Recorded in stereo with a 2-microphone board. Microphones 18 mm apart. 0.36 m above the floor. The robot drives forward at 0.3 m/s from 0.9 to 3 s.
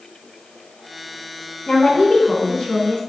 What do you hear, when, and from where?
1.7 s a woman speaking: 55° left (ahead or behind), 2.5 m; by 3.0 s 50° left (ahead or behind), 3 m